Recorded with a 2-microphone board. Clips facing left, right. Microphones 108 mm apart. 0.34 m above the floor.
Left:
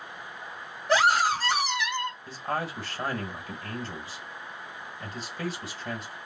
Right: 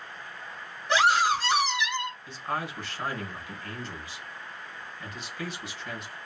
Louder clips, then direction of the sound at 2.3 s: Left 1 dB; 40° left (ahead or behind).